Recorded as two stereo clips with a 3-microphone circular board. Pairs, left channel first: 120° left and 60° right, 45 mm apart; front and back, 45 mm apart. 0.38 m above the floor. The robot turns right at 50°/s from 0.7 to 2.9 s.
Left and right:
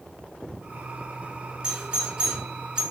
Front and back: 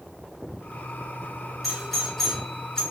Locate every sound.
1.6 s a doorbell: 90° right, 1.4 m; by 2.8 s 35° right, 1.4 m